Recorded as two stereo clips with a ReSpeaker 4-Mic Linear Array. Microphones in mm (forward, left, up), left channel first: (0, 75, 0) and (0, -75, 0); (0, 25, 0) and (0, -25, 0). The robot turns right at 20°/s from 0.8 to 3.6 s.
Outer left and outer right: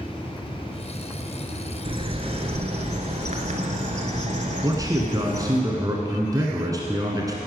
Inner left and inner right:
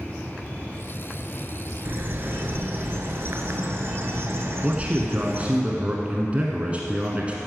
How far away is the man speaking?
About 1.1 m.